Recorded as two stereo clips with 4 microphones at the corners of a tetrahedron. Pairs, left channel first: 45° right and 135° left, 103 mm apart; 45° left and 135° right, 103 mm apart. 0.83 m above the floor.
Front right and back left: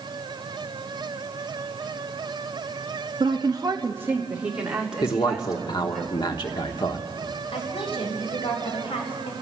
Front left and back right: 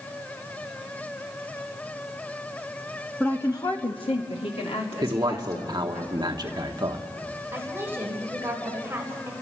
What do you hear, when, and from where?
3.2 s a woman speaking: 125° left, 0.8 m; by 6.0 s 45° left, 3 m
5.0 s a man speaking: 85° right, 1.3 m
7.5 s a woman speaking: 65° right, 3 m